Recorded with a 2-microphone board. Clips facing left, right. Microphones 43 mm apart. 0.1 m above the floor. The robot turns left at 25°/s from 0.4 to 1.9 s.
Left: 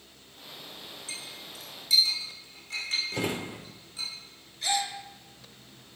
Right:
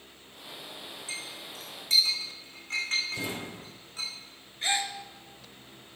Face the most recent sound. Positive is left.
turn(degrees=-30)  # may be behind; listen again after turning